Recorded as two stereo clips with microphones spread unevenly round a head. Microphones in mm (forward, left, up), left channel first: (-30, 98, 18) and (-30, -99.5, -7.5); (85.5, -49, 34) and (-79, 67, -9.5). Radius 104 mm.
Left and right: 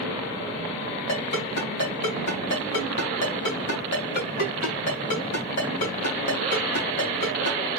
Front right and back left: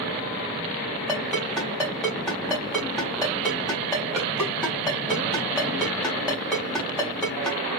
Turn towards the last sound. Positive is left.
turn(degrees=50)